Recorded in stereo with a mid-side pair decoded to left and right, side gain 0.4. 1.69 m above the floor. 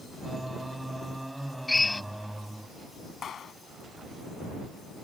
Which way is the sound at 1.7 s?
20° left.